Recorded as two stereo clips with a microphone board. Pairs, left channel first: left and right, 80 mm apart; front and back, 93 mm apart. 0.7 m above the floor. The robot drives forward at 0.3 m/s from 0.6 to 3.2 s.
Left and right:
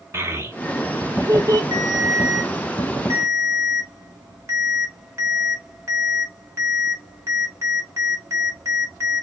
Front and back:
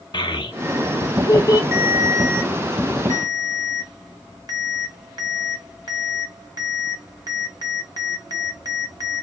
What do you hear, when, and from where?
0.1 s a child speaking: 30° right, 0.8 m; by 1.6 s 50° right, 0.6 m
1.7 s a ringtone: 120° right, 0.9 m; by 9.2 s 140° right, 1.2 m